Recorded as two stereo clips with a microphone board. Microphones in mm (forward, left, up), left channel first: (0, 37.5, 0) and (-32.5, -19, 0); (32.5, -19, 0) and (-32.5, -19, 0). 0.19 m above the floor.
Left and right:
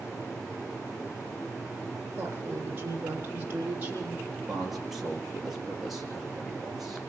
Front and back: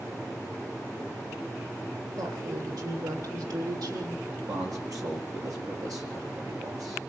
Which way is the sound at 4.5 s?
155° left.